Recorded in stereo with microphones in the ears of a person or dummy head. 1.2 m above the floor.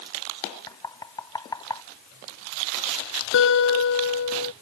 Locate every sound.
0.7 s knocking: 25° left (ahead or behind)
3.3 s a guitar: 70° left (ahead or behind)